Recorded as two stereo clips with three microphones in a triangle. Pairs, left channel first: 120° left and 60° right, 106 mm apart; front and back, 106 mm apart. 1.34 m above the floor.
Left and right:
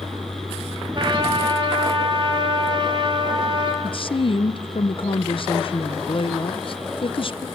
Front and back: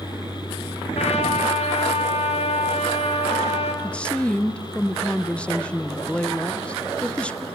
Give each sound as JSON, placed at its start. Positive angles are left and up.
{"t": 0.9, "sound": "a trumpet", "azimuth_deg": -15, "distance_m": 3.0}
{"t": 3.8, "sound": "a woman speaking", "azimuth_deg": 80, "distance_m": 0.7}